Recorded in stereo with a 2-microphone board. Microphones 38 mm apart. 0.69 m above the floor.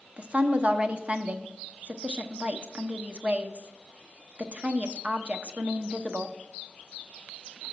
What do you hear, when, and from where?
0.2 s a woman speaking: 35° right (ahead or behind), 0.8 m